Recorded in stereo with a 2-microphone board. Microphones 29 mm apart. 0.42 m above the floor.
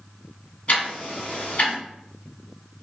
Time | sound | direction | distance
0.7 | ticking | 50° left (ahead or behind) | 1.5 m